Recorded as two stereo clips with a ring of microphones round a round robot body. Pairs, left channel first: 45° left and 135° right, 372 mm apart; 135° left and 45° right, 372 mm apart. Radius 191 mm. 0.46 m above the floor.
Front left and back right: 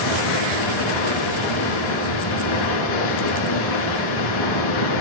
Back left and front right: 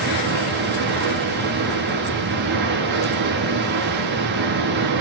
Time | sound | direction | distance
0.0 | running water | 15° left | 7 m